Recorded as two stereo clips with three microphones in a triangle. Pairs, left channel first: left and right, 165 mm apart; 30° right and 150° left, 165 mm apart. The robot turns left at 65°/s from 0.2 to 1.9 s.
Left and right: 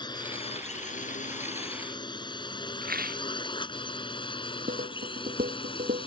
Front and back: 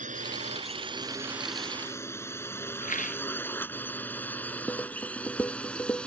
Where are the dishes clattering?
110° right.